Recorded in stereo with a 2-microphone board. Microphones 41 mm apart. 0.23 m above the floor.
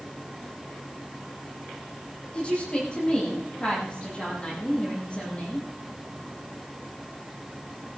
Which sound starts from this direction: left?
A woman speaking, at 2.3 s.